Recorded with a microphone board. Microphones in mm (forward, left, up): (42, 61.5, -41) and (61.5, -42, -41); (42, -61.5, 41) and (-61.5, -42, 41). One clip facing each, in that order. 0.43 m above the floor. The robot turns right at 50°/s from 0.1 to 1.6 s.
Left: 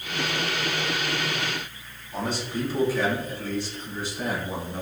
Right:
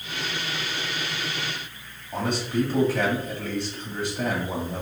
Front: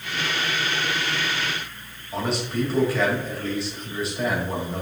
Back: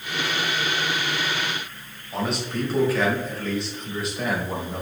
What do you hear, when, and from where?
2.1 s a man speaking: 100° right, 2 m